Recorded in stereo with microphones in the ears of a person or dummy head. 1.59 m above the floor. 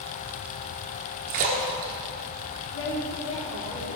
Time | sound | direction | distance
1.3 | a splash | 45° right (ahead or behind) | 1.4 m
2.7 | a woman speaking | 80° left | 3.5 m